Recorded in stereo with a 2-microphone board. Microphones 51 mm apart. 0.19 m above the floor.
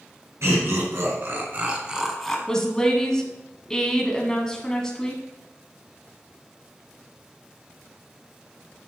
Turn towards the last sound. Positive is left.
turn(degrees=10)  # may be behind; listen again after turning